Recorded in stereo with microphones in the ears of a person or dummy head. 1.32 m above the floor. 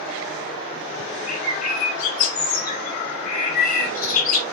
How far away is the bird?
About 0.7 m.